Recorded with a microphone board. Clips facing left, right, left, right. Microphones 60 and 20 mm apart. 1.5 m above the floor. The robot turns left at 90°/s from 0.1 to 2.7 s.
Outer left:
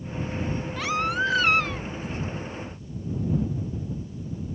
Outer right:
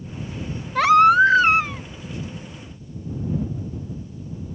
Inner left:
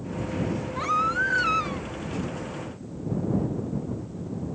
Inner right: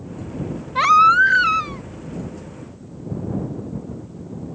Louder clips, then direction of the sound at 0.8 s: Outer right 14 dB, inner right 13 dB; 85° right.